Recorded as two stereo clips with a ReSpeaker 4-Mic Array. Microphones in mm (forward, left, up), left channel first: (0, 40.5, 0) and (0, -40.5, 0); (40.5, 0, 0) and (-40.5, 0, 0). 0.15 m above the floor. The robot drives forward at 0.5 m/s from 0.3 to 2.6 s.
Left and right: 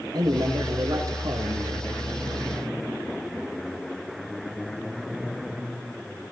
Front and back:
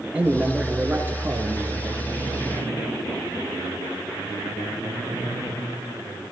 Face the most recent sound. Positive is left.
turn(degrees=-135)